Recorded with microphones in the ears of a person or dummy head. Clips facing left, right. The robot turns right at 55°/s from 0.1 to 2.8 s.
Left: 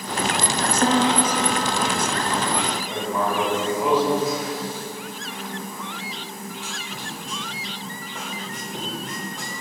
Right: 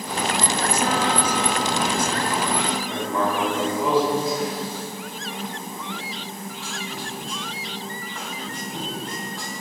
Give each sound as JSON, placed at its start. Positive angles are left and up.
{"t": 0.8, "sound": "a piano", "azimuth_deg": 140, "distance_m": 0.6}
{"t": 2.8, "sound": "writing", "side_deg": 15, "distance_m": 5.0}